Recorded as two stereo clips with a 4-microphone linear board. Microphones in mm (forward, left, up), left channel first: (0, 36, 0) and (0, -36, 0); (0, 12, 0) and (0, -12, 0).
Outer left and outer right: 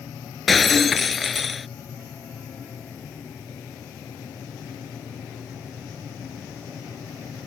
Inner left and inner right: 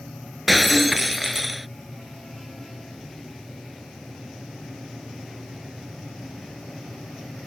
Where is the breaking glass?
Centre (ahead or behind).